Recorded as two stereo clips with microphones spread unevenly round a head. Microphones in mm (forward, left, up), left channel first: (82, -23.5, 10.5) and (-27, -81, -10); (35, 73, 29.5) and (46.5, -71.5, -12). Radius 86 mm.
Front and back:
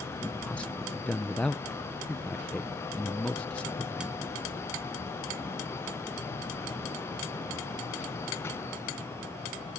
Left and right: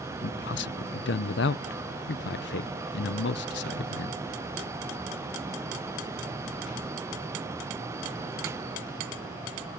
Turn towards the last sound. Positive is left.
turn(degrees=115)